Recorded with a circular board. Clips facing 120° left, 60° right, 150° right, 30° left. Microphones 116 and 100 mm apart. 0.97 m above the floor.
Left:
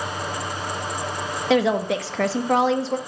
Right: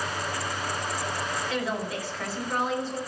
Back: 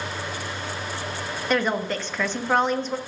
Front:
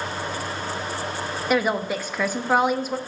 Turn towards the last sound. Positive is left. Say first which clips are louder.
# left 15 dB, front 1 dB
turn(degrees=110)